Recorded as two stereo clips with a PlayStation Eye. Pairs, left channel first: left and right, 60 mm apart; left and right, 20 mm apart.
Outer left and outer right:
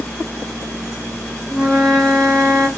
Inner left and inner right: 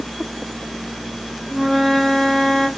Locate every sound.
1.5 s a flute: centre (ahead or behind), 2 m